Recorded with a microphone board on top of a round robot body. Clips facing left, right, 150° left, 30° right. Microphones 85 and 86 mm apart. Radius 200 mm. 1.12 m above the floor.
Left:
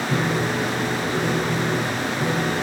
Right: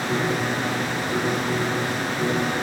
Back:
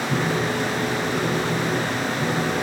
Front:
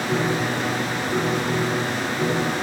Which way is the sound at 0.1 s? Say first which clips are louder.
Even, front 1 dB; 35° right.